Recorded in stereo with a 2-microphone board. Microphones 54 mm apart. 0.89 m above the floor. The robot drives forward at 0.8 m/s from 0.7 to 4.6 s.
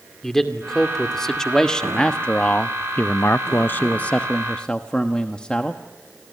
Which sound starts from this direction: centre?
A man speaking, at 0.2 s.